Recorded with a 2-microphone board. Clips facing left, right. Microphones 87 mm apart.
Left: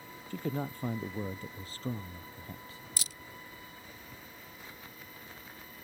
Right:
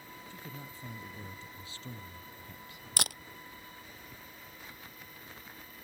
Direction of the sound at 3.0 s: 75° right (ahead or behind).